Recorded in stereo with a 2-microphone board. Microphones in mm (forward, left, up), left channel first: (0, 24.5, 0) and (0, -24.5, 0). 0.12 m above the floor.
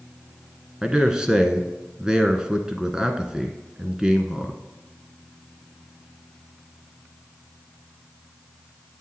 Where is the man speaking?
15° right (ahead or behind), 1.0 m.